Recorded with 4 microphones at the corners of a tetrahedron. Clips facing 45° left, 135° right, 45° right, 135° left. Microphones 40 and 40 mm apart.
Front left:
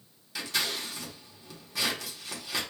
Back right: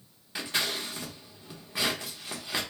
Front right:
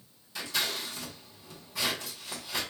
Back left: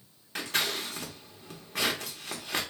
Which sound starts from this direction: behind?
Scissors, at 0.3 s.